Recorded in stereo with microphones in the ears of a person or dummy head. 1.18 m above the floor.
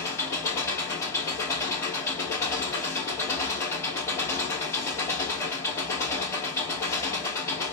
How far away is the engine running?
About 1.0 m.